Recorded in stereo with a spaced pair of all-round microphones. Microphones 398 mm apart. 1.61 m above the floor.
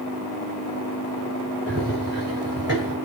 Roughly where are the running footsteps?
Right.